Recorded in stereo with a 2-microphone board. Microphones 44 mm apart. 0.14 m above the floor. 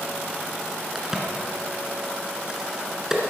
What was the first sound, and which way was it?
A crack, 10° right (ahead or behind).